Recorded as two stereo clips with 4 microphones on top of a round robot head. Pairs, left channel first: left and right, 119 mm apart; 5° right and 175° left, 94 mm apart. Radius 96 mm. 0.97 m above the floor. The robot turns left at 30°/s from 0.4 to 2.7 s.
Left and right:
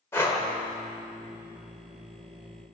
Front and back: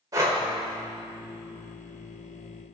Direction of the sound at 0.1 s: 150° left.